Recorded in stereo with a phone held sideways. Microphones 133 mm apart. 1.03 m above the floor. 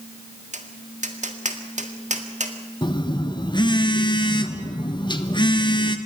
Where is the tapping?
65° right (ahead or behind), 1.8 m.